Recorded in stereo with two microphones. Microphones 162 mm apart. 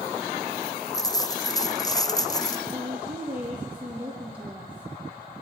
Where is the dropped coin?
25° left (ahead or behind), 0.8 m.